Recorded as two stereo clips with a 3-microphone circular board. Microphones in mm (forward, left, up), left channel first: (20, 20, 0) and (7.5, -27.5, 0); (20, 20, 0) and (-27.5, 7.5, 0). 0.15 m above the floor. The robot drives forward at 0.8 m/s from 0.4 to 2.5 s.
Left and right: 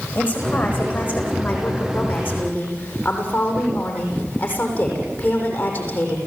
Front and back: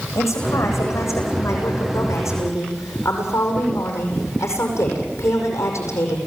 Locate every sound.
0.1 s a woman speaking: 10° left, 9.5 m; by 6.2 s 15° left, 8 m